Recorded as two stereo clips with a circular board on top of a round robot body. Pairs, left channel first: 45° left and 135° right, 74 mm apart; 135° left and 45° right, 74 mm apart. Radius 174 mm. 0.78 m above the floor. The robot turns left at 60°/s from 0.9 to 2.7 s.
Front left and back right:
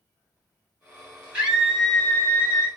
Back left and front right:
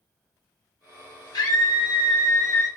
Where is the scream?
160° left, 2.5 m; by 2.7 s 75° left, 2.5 m.